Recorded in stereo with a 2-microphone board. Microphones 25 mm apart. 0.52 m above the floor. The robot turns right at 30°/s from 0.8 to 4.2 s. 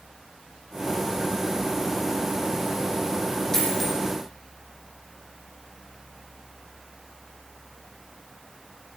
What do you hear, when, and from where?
3.5 s a dropped coin: 20° left (ahead or behind), 3.5 m; by 4.0 s 10° left (ahead or behind), 3.5 m